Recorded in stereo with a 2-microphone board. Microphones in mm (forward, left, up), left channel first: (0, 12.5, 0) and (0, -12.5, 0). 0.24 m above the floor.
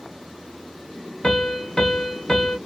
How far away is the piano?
About 0.7 m.